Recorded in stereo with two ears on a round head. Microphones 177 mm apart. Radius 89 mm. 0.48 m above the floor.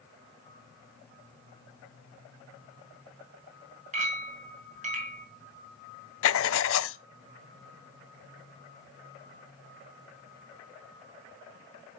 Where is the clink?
40° right (ahead or behind), 3 m.